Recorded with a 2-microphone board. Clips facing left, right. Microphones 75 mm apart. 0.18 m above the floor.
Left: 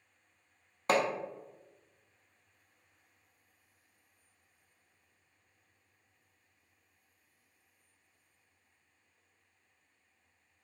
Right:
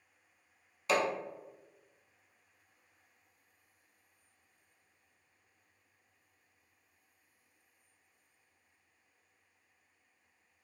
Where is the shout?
No shout in this recording.